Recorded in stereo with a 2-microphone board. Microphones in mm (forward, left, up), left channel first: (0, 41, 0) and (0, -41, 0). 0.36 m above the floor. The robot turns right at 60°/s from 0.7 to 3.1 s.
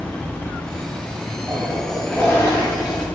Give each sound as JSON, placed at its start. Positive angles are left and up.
{"t": 1.5, "sound": "a toilet flushing", "azimuth_deg": -30, "distance_m": 1.0}